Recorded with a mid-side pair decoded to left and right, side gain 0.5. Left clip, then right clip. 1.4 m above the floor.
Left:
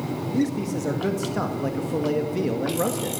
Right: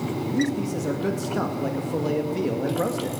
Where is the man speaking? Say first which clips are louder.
Left 1 dB; 10° left, 1.9 m.